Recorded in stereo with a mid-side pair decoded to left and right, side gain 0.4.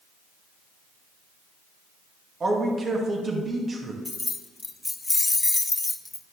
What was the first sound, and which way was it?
A man speaking, 40° right.